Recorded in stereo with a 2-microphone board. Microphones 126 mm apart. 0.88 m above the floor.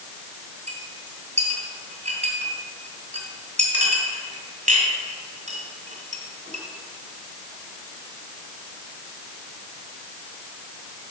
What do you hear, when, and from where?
0.7 s a clink: 75° right (ahead or behind), 2 m